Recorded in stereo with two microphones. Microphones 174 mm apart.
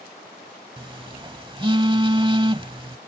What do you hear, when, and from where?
0.8 s a phone buzzing: 30° right (ahead or behind)